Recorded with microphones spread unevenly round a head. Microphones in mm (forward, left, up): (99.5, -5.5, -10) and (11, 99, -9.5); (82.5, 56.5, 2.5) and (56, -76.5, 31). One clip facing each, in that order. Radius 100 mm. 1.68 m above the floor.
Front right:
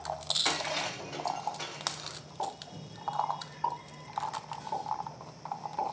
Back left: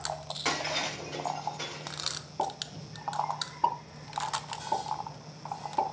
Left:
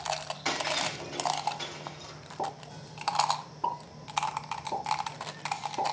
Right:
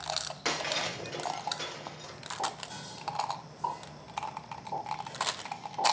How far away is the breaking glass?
About 4.5 m.